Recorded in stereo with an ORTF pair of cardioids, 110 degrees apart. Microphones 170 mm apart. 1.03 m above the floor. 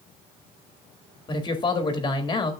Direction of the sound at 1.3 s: 25° left.